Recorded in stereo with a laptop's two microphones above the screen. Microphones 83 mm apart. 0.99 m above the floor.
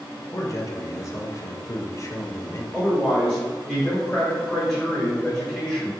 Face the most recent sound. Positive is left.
turn(degrees=5)  # may be behind; listen again after turning